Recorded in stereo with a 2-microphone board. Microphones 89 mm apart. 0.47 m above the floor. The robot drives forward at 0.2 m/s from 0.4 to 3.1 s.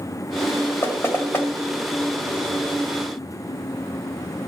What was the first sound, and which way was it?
Knocking, 30° left (ahead or behind).